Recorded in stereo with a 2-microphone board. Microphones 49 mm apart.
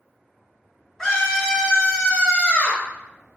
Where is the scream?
15° left (ahead or behind), 1.6 m; by 2.8 s 40° left (ahead or behind), 1.6 m.